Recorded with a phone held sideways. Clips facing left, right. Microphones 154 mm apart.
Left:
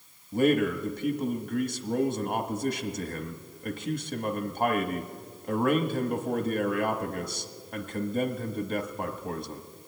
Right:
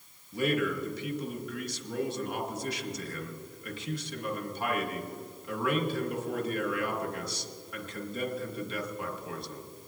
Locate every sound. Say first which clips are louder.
0.3 s a man speaking: left 5 dB; 50° left (ahead or behind), 1.2 m